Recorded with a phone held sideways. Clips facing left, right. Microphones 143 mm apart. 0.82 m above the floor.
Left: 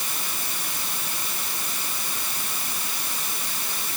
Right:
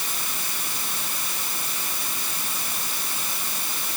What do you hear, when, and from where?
Only background noise.